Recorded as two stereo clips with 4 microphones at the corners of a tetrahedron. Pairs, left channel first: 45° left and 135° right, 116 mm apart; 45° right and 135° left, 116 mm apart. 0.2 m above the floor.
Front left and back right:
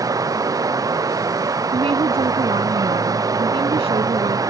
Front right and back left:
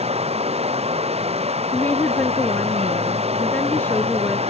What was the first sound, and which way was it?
Running water, 165° left.